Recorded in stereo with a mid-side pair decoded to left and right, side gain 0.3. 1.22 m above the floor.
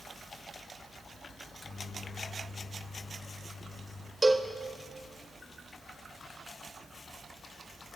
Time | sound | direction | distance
1.4 | a microwave | 35° left | 0.9 m
4.2 | a cowbell | 30° right | 0.6 m